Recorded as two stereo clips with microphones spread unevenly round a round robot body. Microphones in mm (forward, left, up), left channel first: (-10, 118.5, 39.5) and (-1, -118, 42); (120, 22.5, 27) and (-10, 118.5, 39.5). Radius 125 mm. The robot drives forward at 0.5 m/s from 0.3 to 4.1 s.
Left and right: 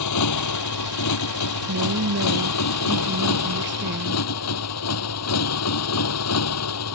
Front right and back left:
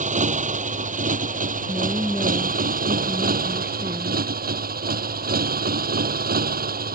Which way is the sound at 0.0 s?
100° left.